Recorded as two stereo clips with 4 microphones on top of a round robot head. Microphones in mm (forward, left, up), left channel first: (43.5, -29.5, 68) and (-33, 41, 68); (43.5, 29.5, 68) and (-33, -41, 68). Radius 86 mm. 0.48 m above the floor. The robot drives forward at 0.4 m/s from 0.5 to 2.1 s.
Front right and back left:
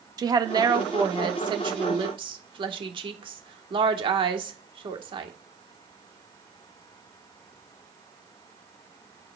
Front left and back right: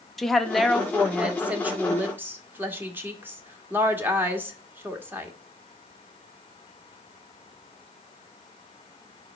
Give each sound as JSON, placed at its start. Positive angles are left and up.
{"t": 0.2, "sound": "a woman speaking", "azimuth_deg": 130, "distance_m": 1.0}